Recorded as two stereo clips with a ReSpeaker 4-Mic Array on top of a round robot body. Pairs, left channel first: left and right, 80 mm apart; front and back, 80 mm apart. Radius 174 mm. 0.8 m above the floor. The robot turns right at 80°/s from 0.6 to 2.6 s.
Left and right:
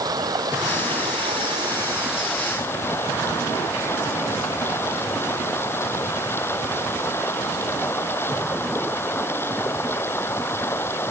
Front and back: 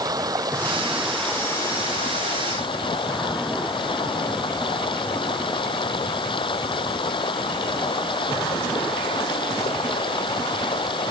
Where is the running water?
135° right; by 11.1 s 25° left.